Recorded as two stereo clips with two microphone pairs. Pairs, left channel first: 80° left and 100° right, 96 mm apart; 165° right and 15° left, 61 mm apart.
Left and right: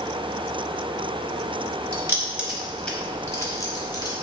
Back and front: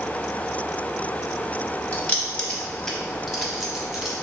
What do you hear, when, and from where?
1.9 s keys jangling: 120° right, 0.9 m; by 4.1 s 95° left, 1.3 m